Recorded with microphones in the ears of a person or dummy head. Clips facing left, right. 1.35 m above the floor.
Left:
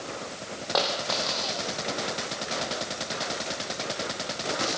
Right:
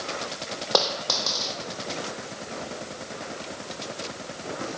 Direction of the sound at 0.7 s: 65° right (ahead or behind).